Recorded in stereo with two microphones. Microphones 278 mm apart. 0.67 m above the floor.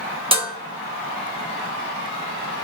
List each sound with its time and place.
0.3 s dishes clattering: 20° right (ahead or behind), 0.6 m